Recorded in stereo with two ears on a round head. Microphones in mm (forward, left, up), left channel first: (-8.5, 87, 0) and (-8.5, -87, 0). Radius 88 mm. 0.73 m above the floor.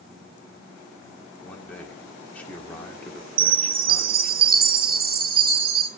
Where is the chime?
50° right (ahead or behind), 2.5 m.